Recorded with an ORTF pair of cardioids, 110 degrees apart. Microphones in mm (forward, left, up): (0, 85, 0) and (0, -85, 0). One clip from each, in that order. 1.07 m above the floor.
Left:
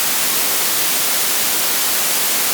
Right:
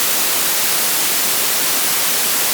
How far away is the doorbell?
I don't hear a doorbell.